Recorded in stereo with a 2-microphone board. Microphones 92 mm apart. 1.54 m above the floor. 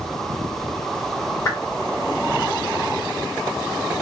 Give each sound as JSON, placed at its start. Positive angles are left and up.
{"t": 1.4, "sound": "a whoosh", "side_deg": 30, "distance_m": 1.6}